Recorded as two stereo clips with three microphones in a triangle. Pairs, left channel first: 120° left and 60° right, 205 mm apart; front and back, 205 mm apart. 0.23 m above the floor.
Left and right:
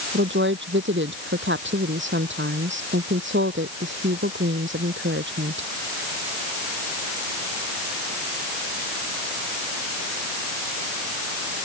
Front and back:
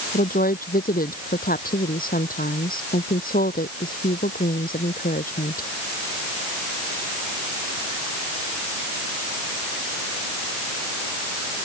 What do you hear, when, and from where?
0.1 s a woman speaking: 45° right